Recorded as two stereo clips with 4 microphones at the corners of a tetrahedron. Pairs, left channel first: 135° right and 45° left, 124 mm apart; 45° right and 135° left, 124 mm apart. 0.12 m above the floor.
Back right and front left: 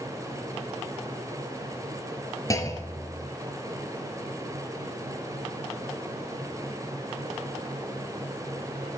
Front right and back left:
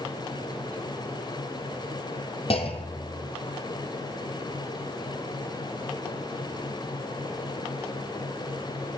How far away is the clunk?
About 0.7 m.